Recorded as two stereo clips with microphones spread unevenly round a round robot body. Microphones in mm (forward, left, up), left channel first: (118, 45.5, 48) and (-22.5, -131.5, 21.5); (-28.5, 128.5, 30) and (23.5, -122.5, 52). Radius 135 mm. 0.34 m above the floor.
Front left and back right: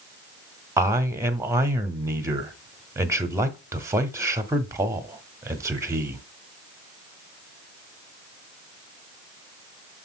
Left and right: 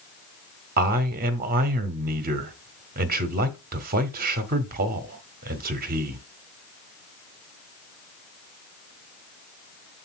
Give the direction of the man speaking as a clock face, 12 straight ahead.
3 o'clock.